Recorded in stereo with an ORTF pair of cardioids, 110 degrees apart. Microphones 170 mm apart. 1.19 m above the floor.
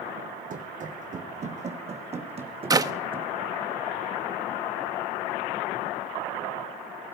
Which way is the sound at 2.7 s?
20° right.